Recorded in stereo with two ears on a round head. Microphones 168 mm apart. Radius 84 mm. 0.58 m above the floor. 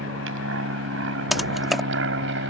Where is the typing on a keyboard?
Centre (ahead or behind).